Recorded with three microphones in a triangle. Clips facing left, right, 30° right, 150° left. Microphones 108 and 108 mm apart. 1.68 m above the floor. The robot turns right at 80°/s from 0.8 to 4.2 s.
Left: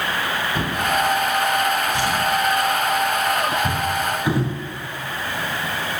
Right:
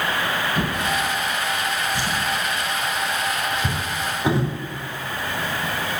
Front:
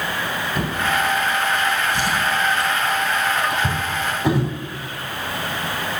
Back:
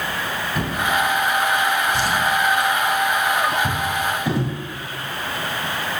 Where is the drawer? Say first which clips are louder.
Left 2 dB, back 1 dB; 60° left, 2.5 m; by 4.5 s 30° right, 2.5 m.